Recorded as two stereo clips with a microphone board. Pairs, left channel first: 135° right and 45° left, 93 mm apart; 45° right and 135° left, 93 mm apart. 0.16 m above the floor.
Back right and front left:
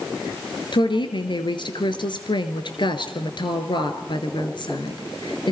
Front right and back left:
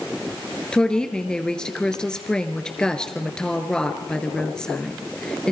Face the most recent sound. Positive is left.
turn(degrees=-125)